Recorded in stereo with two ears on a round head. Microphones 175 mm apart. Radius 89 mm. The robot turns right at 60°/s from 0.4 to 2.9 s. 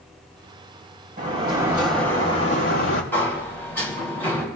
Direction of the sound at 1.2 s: 45° right.